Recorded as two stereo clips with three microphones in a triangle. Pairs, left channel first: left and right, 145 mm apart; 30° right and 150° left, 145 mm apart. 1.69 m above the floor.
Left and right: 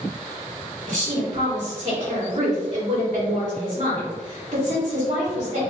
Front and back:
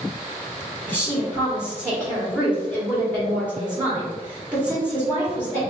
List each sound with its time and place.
0.9 s a woman speaking: 130° right, 1.3 m